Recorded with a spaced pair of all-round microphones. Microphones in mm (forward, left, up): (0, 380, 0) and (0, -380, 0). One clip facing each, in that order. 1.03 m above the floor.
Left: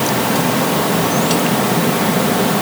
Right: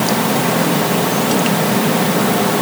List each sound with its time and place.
Only background noise.